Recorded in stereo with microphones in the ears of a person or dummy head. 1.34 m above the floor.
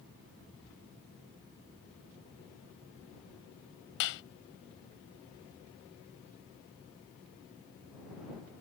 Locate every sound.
4.0 s a clap: 65° left (ahead or behind)